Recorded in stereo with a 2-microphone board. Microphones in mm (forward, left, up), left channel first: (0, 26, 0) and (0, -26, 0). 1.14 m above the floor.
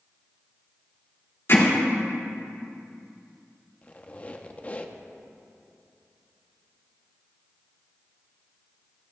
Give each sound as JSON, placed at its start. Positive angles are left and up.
{"t": 1.5, "sound": "hammering", "side_deg": 55, "distance_m": 2.5}
{"t": 3.8, "sound": "a squeak", "side_deg": 30, "distance_m": 0.7}